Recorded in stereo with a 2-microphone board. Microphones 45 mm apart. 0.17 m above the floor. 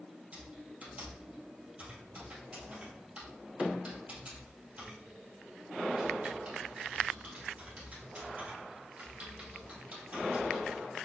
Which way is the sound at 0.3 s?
35° right (ahead or behind).